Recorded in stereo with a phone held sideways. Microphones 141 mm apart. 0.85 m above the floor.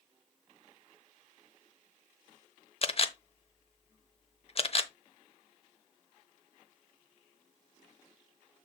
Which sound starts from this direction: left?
A camera shutter, at 2.8 s.